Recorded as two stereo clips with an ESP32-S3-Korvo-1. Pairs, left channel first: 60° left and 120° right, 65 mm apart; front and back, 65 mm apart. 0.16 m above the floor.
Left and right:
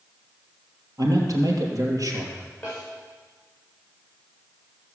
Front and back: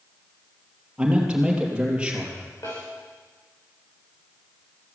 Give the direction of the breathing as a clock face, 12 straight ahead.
I don't hear breathing.